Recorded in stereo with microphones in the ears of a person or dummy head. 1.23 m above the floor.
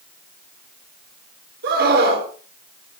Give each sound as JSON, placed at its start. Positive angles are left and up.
{"t": 1.6, "sound": "a scream", "side_deg": -60, "distance_m": 4.5}